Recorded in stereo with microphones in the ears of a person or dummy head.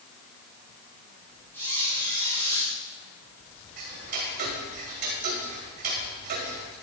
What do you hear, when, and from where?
1.5 s a squeak: 15° left (ahead or behind), 5 m
3.8 s ticking: 50° right (ahead or behind), 2.0 m